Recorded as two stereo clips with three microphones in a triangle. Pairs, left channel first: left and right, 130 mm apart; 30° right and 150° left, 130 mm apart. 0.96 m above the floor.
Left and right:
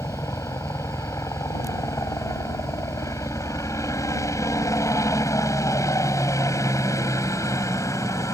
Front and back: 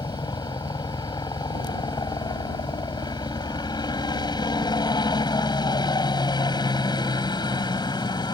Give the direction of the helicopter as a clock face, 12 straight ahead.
11 o'clock.